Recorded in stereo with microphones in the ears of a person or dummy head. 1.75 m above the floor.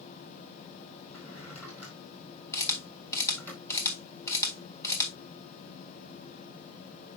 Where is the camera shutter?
15° left (ahead or behind), 3 m.